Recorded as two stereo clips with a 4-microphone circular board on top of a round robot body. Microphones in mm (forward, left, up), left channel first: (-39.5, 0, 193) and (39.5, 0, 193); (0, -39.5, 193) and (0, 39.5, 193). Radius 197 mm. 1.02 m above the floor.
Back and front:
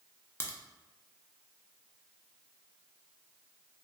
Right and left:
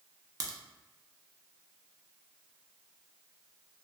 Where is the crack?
125° left, 0.7 m.